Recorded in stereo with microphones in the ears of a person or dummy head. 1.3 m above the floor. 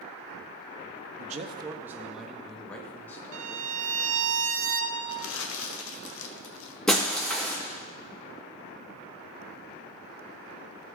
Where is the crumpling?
85° left, 1.0 m.